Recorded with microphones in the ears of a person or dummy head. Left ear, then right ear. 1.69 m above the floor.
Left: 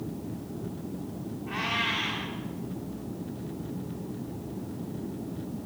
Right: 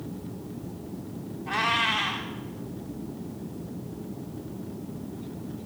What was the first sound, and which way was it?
A cat meowing, 40° right (ahead or behind).